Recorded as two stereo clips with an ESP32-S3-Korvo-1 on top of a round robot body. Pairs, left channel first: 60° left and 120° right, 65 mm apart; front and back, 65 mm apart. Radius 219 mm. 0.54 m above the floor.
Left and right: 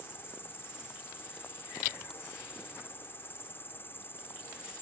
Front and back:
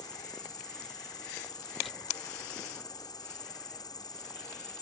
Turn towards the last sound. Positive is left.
turn(degrees=5)